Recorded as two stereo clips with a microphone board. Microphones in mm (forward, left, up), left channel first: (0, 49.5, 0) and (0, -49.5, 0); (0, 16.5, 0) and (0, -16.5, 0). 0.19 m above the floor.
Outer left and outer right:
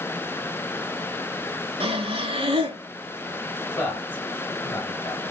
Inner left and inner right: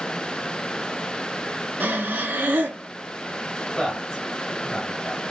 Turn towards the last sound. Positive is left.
turn(degrees=25)  # may be behind; listen again after turning